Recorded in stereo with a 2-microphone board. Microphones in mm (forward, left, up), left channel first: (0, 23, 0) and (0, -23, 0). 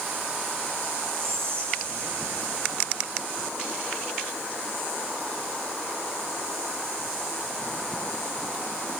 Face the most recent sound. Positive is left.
turn(degrees=-75)  # may be behind; listen again after turning